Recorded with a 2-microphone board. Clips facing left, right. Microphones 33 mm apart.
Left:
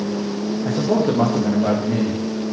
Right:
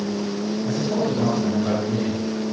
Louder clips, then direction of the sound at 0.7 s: Left 6 dB; 55° left (ahead or behind).